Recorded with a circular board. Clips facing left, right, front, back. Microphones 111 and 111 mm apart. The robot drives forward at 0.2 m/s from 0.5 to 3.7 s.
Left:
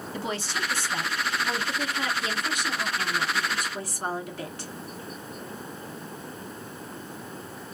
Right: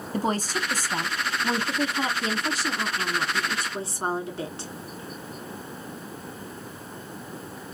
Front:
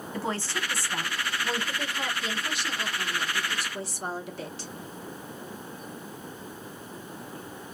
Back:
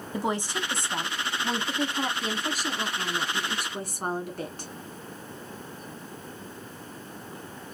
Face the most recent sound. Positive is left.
turn(degrees=-150)